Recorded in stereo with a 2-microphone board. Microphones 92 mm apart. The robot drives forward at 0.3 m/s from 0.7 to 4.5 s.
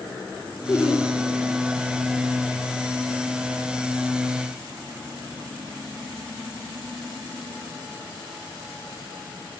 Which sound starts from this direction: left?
Laughter, at 0.7 s.